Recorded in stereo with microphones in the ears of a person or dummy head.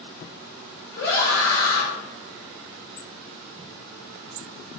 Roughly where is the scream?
Left.